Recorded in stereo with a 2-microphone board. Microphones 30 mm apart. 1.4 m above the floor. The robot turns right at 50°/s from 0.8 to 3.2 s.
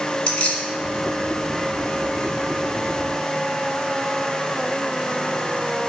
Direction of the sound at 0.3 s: 45° left (ahead or behind).